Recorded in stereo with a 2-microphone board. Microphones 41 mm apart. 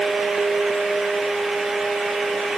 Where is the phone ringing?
I don't hear a phone ringing.